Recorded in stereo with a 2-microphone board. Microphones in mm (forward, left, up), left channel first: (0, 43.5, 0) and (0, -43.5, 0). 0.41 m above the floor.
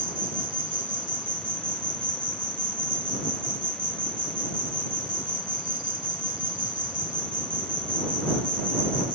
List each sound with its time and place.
0.0 s an insect: 85° right